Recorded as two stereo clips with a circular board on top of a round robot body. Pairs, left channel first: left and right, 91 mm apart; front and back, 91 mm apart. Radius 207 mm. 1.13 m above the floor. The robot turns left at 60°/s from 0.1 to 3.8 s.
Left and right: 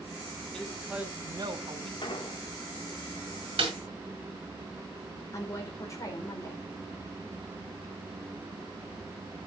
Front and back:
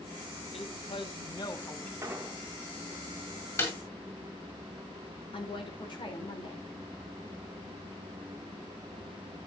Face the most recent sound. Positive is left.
turn(degrees=35)